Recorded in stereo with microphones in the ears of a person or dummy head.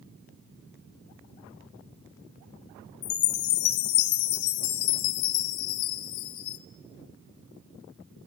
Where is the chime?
45° left (ahead or behind), 1.0 m.